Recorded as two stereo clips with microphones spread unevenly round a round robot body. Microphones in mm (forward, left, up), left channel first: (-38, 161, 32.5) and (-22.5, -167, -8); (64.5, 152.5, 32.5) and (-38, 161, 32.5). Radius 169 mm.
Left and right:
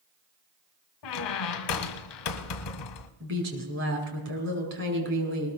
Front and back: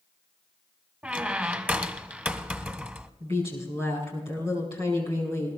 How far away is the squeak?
About 1.6 m.